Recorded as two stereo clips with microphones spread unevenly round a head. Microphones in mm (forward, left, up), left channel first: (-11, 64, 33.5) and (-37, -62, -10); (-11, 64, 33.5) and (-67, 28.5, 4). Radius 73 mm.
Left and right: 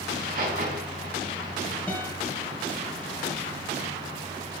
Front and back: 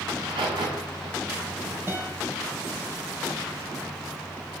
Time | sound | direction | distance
0.1 | a crack | 125° right | 4.5 m
1.9 | a guitar | 145° left | 3 m